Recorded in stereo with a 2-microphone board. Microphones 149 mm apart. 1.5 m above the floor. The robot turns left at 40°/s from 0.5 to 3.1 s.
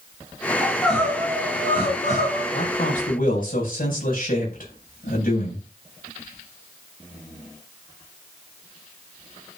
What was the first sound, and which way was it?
Crying, 175° right.